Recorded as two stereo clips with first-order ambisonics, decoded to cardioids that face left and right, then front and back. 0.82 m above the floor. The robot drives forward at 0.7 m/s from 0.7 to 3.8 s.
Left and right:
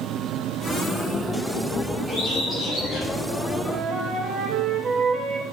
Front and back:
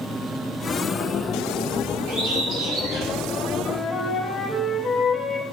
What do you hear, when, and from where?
2.1 s a bird: straight behind, 2 m
3.7 s a flute: 60° right, 0.6 m; by 5.4 s 75° right, 0.6 m